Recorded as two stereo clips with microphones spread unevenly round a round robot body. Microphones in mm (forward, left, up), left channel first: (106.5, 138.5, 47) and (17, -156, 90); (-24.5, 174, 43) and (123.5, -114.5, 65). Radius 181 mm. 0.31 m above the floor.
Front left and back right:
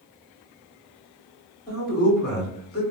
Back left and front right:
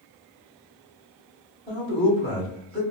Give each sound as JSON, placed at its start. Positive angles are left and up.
{"t": 1.7, "sound": "a man speaking", "azimuth_deg": 65, "distance_m": 1.8}